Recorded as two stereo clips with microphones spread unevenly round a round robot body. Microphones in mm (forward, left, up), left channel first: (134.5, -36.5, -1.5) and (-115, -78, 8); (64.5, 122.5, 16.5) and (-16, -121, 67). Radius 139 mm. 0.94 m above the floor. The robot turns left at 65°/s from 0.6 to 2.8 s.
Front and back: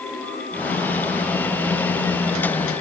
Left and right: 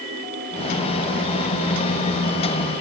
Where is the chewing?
I don't hear chewing.